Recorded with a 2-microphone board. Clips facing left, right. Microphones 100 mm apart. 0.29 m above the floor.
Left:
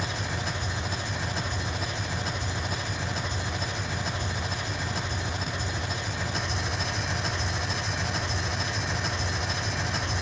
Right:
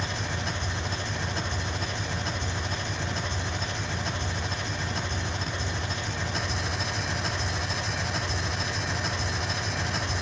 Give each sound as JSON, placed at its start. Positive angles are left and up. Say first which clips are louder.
{"t": 0.0, "sound": "an engine running", "louder": "even", "side_deg": 5, "distance_m": 1.1}